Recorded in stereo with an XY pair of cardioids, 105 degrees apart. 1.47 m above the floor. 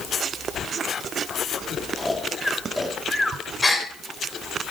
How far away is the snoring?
About 2.5 m.